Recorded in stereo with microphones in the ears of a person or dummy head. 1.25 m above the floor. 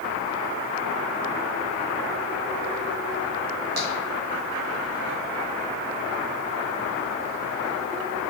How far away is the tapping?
About 1.5 m.